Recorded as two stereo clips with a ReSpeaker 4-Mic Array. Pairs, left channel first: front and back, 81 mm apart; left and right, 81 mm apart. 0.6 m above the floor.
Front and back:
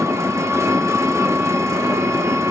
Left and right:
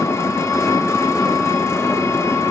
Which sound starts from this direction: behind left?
An engine running, at 0.0 s.